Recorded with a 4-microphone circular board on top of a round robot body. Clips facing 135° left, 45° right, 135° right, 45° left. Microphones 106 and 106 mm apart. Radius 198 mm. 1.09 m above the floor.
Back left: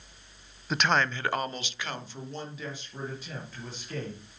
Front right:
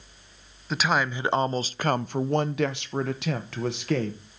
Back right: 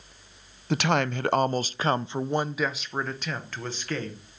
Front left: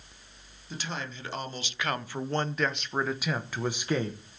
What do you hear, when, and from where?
0.7 s a man speaking: 135° right, 0.8 m; by 4.2 s 30° right, 1.5 m